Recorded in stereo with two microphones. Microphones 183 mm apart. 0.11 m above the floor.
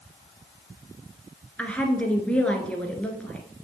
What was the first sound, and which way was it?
A woman speaking, 5° left (ahead or behind).